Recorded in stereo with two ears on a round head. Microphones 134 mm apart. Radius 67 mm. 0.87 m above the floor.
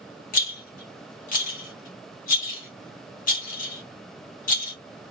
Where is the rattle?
60° left (ahead or behind), 1.7 m.